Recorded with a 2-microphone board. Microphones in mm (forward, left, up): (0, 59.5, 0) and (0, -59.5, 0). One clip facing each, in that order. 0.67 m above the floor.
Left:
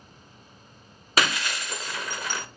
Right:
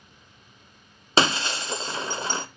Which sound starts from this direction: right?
Breaking glass, at 1.2 s.